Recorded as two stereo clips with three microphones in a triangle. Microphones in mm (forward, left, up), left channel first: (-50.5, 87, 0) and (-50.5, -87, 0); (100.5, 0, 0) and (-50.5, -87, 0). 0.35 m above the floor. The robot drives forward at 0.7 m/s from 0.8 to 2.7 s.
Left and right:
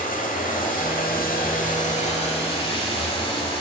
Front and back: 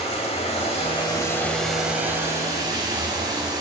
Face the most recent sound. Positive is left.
turn(degrees=145)